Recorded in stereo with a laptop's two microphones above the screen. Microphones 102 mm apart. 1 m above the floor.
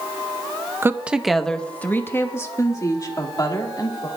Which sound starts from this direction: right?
A woman speaking, at 0.8 s.